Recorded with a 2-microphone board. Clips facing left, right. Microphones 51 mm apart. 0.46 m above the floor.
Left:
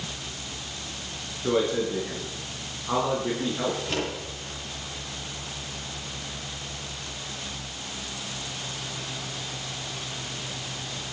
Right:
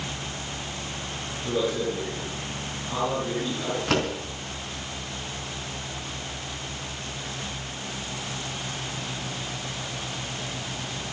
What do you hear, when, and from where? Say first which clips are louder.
1.4 s a man speaking: left 2 dB; 40° left (ahead or behind), 5.5 m
3.9 s a door slam: right 5 dB; 65° right (ahead or behind), 4 m